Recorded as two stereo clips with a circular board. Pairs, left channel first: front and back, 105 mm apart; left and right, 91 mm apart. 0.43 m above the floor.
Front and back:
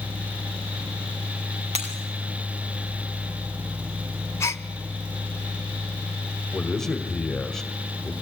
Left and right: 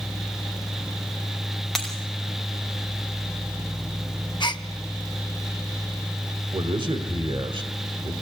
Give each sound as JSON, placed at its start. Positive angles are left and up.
{"t": 1.8, "sound": "breaking glass", "azimuth_deg": 175, "distance_m": 3.0}
{"t": 4.4, "sound": "a gasp", "azimuth_deg": 60, "distance_m": 0.7}
{"t": 6.5, "sound": "a man speaking", "azimuth_deg": -85, "distance_m": 1.5}